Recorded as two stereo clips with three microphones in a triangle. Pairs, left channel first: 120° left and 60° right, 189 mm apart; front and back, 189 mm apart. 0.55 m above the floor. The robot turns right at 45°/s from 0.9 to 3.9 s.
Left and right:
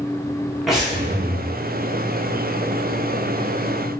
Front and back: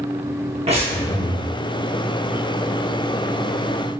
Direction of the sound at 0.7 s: 145° right.